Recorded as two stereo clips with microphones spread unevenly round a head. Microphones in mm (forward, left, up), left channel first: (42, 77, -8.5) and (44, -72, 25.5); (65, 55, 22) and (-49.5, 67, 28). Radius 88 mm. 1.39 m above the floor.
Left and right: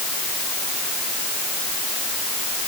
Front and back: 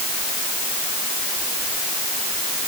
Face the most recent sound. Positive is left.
No sound to turn to.